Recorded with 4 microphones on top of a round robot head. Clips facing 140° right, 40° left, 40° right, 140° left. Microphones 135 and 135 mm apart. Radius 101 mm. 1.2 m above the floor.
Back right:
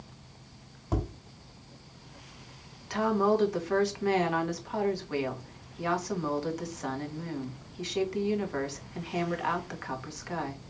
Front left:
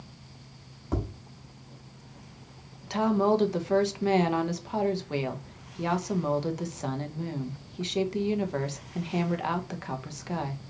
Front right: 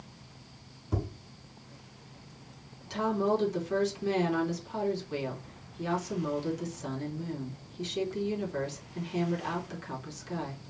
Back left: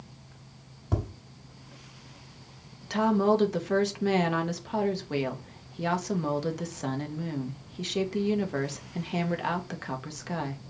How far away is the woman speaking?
About 1.2 m.